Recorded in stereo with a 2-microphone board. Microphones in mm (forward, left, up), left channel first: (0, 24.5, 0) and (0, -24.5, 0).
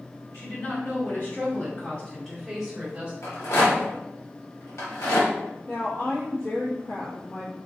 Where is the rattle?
80° left, 1.0 m.